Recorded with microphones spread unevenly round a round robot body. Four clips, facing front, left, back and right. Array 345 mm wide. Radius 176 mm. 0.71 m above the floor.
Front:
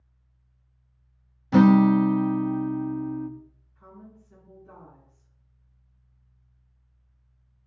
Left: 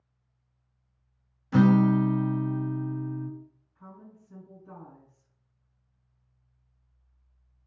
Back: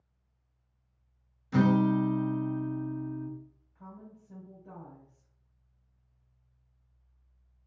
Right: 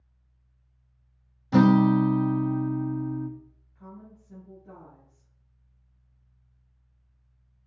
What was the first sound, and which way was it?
A guitar, 25° right.